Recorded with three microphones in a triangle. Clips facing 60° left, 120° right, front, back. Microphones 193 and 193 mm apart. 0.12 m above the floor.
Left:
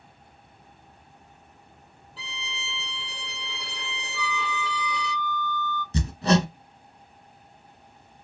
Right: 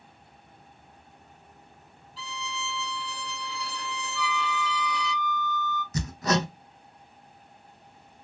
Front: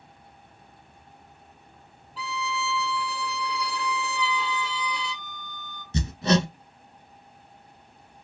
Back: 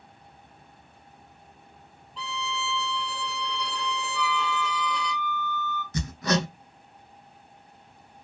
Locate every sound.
2.2 s a violin: 85° left, 1.1 m
4.1 s a flute: 45° right, 0.9 m
5.9 s hammering: 40° left, 0.7 m